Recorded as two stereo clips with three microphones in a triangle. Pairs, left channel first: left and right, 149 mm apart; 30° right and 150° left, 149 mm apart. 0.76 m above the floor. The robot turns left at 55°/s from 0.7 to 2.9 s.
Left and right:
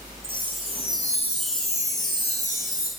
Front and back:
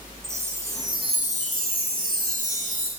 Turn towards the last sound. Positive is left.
turn(degrees=100)